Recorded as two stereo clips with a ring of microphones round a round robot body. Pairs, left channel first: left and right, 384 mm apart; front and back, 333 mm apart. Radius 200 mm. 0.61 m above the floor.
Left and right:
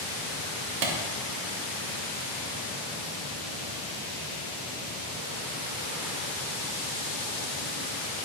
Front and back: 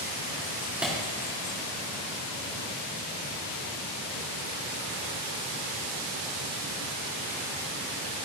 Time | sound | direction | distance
0.8 | a clap | 95° right | 2.5 m